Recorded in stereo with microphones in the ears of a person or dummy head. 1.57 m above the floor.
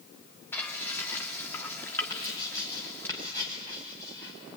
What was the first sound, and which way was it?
Frying, 15° left (ahead or behind).